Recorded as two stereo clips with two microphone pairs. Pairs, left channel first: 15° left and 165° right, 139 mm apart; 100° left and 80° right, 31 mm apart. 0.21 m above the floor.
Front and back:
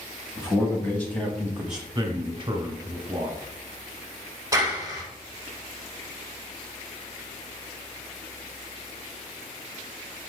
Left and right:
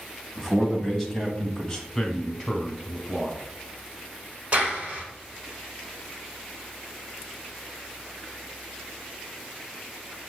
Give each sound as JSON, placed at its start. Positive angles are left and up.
{"t": 0.4, "sound": "a man speaking", "azimuth_deg": 15, "distance_m": 1.5}
{"t": 1.9, "sound": "a man speaking", "azimuth_deg": 180, "distance_m": 1.2}
{"t": 4.5, "sound": "a clap", "azimuth_deg": -110, "distance_m": 1.5}